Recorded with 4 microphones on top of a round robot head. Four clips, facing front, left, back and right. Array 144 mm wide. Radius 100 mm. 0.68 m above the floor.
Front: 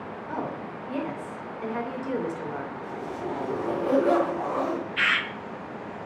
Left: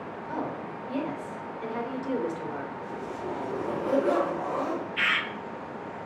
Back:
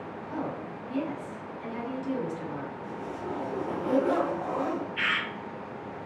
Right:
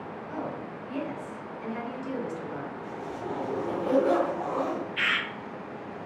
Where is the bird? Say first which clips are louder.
Left 1 dB, front 4 dB; 5° right, 1.1 m.